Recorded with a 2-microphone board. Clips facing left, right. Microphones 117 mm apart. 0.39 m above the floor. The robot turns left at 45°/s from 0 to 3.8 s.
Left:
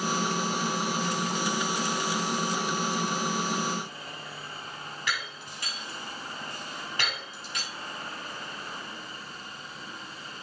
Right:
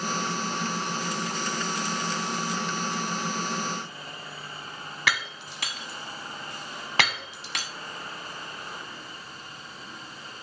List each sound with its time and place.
5.1 s breaking glass: 80° right, 1.1 m